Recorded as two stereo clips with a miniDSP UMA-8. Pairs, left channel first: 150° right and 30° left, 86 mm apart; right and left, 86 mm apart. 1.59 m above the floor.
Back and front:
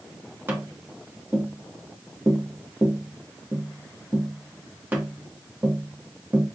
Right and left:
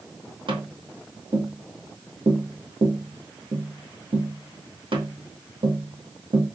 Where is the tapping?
95° left, 1.1 m.